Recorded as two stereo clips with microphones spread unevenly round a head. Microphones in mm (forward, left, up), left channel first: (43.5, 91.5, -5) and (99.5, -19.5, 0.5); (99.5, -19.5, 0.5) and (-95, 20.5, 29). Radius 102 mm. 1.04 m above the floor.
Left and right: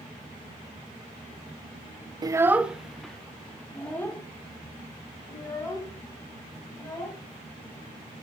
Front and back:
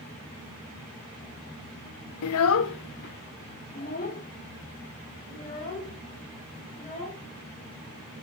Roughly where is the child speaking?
Ahead.